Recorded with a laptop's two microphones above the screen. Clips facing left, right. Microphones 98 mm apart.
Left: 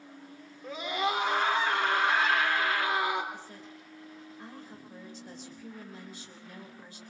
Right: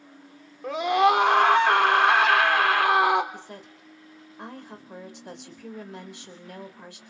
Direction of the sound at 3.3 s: 75° right (ahead or behind).